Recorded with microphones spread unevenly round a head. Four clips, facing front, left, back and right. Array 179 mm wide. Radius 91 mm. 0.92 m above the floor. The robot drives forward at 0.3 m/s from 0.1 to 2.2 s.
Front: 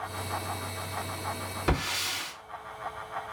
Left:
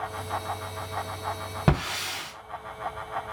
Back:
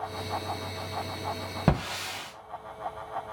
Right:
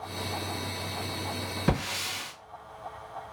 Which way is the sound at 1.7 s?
135° left.